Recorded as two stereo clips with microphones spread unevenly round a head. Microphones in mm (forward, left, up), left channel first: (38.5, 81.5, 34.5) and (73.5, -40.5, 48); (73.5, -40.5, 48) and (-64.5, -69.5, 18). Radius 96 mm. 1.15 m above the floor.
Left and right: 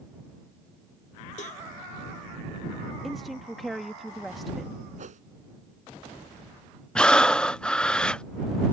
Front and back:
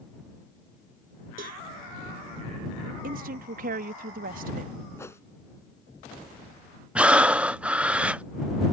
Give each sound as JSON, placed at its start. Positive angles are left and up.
{"t": 1.4, "sound": "a cowbell", "azimuth_deg": 150}
{"t": 3.0, "sound": "a woman speaking", "azimuth_deg": -165}
{"t": 5.0, "sound": "a whoosh", "azimuth_deg": -55}
{"t": 7.0, "sound": "breathing", "azimuth_deg": 160}